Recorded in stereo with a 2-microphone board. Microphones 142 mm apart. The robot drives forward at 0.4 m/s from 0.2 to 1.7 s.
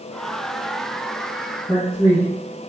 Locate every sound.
1.7 s a man speaking: centre (ahead or behind), 1.9 m